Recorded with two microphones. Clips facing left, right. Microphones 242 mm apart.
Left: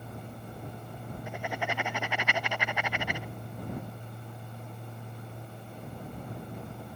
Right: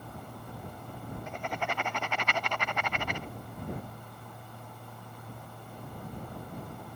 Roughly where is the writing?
Centre.